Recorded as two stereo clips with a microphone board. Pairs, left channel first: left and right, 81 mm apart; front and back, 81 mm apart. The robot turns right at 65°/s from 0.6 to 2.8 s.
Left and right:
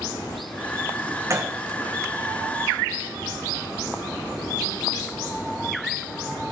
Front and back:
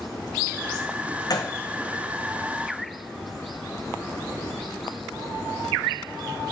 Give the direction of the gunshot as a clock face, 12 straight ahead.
1 o'clock.